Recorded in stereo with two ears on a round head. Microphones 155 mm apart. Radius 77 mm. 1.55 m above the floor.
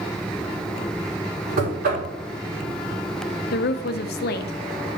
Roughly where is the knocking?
Right.